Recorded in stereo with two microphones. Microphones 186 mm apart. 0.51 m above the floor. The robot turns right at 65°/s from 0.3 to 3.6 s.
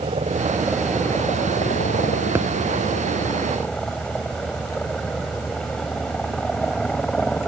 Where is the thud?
10° right (ahead or behind); by 2.5 s 5° right (ahead or behind).